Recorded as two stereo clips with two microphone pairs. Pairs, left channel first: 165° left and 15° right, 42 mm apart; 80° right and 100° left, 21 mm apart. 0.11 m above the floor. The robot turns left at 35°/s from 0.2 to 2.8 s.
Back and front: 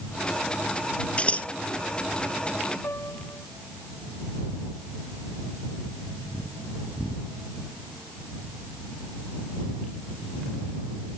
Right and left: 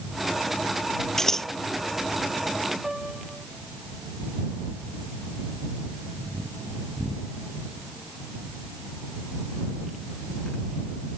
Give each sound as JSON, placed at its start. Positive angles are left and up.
{"t": 1.2, "sound": "scissors", "azimuth_deg": -145}
{"t": 2.8, "sound": "a piano", "azimuth_deg": 180}